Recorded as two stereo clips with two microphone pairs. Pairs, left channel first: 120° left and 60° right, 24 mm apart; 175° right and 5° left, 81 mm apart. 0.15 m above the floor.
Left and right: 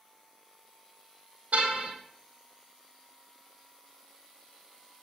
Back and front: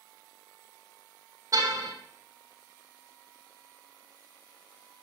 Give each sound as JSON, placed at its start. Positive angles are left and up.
{"t": 1.5, "sound": "a car horn", "azimuth_deg": -45, "distance_m": 3.5}